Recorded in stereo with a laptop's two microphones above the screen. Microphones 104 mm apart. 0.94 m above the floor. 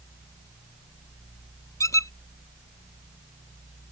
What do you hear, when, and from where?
1.8 s a squeak: 30° left (ahead or behind)